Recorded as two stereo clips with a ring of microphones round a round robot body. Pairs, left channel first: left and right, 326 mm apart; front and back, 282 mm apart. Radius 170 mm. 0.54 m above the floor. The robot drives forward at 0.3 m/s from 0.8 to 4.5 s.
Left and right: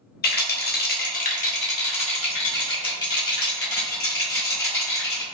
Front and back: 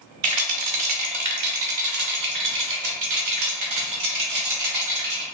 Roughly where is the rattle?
Behind left.